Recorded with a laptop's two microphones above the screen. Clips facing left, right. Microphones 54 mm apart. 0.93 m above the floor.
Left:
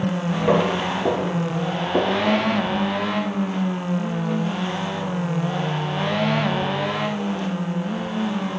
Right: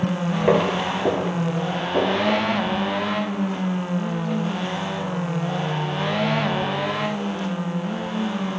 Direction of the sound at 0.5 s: 30° right (ahead or behind).